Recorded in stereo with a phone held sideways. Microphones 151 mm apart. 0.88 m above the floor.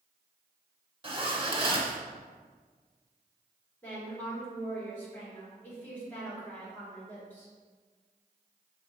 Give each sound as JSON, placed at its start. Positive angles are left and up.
{"t": 1.0, "sound": "a zipper", "side_deg": -35, "distance_m": 0.7}
{"t": 3.8, "sound": "a woman speaking", "side_deg": 10, "distance_m": 1.9}